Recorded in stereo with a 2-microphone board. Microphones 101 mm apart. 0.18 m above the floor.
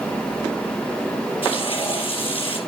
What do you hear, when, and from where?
1.4 s frying: 55° left (ahead or behind), 3.5 m